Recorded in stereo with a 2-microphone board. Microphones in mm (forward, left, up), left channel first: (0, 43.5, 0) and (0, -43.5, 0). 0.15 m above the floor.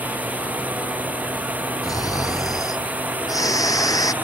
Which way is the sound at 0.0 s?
20° right (ahead or behind).